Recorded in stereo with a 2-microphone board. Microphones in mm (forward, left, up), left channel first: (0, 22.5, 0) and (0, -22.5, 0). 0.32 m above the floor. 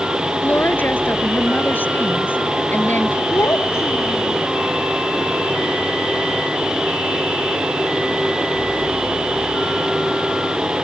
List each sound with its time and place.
0.4 s a woman speaking: 45° left (ahead or behind)
3.3 s a child speaking: 80° left